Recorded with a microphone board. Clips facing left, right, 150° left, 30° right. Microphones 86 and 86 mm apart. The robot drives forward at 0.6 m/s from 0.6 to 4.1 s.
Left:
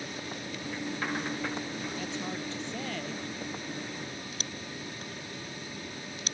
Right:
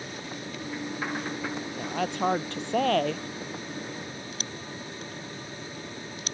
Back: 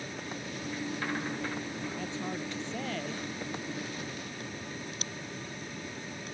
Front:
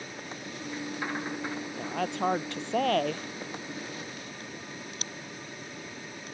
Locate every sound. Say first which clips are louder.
1.8 s a woman speaking: right 7 dB, front 6 dB; 60° right; by 3.2 s 65° right